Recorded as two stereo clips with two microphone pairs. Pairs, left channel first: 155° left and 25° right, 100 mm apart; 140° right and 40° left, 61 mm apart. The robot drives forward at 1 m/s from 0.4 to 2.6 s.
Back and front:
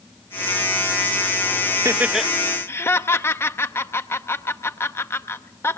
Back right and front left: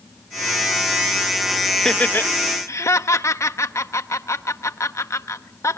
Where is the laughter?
55° right, 0.7 m; by 5.8 s 140° right, 0.8 m.